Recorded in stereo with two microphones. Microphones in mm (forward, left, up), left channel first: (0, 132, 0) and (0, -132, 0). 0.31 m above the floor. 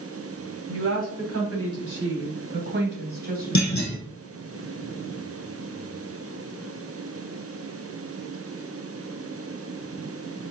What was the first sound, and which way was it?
A woman speaking, 60° right (ahead or behind).